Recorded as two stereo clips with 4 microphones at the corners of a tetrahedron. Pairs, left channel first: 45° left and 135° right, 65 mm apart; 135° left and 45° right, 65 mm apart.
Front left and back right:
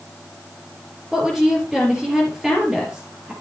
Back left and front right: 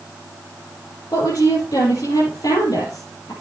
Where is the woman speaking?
145° left, 4 m.